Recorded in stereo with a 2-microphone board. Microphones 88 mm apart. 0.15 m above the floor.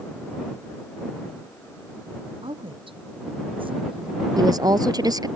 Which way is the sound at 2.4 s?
80° right.